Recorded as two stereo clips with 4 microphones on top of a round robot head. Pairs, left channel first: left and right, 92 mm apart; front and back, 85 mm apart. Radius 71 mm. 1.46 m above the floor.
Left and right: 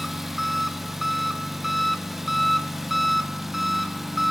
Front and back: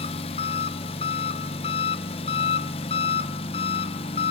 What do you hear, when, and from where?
0.0 s an engine running: straight ahead, 0.9 m